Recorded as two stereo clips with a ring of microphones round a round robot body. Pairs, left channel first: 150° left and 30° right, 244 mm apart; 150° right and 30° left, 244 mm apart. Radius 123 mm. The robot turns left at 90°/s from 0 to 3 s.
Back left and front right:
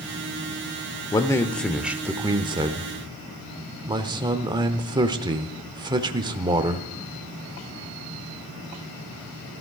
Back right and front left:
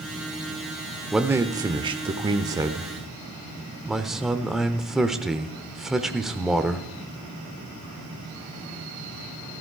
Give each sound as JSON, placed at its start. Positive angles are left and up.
{"t": 1.1, "sound": "a man speaking", "azimuth_deg": 115, "distance_m": 0.8}